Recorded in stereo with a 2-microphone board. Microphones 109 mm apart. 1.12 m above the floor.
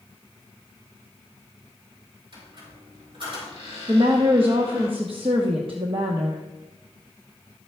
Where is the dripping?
No dripping in this recording.